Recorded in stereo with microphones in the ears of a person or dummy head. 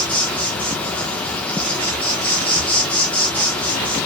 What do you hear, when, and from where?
0.0 s an insect: centre (ahead or behind), 0.9 m